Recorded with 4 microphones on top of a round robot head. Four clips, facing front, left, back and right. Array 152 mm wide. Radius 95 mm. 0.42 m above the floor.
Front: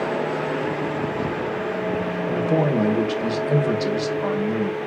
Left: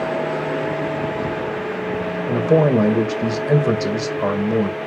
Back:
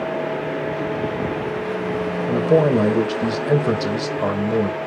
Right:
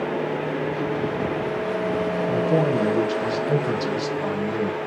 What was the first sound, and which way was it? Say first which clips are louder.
A man speaking: left 7 dB, back 5 dB; 125° left.